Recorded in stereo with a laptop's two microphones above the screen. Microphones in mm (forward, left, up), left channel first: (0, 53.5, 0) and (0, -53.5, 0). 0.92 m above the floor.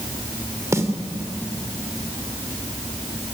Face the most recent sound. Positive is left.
turn(degrees=-30)  # may be behind; listen again after turning